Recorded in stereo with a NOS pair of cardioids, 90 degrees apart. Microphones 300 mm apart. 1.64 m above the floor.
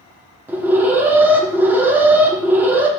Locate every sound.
0.5 s an alarm: 5° right, 0.8 m